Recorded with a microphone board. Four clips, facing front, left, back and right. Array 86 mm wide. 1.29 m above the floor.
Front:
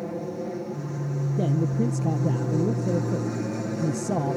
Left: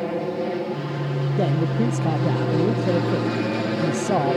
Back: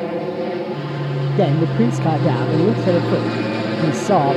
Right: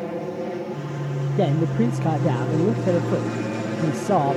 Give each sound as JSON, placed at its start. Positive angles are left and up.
{"t": 0.0, "sound": "an aircraft", "azimuth_deg": 160}
{"t": 1.4, "sound": "a man speaking", "azimuth_deg": -170}